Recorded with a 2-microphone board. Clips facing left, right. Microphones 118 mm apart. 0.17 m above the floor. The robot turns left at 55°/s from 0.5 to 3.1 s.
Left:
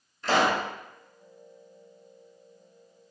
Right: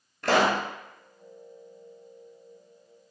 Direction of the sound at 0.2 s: 65° right (ahead or behind).